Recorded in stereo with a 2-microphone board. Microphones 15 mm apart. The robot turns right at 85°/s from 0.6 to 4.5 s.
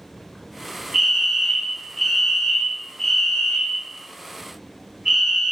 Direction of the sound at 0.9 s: 60° right.